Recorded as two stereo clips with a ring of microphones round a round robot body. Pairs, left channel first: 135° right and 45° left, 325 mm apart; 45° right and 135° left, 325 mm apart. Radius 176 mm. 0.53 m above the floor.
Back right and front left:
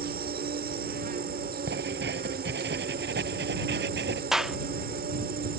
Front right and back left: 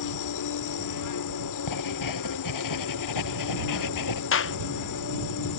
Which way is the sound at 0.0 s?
15° right.